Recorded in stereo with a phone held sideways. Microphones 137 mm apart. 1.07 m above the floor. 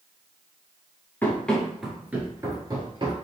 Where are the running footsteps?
15° left (ahead or behind), 1.0 m; by 3.1 s 35° right (ahead or behind), 1.3 m.